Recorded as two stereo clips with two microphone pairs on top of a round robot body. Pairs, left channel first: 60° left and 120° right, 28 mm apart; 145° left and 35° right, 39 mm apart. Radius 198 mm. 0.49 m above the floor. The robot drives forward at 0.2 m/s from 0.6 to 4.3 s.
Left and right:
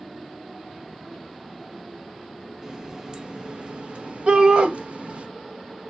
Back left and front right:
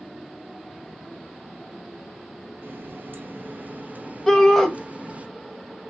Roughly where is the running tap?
Ahead right.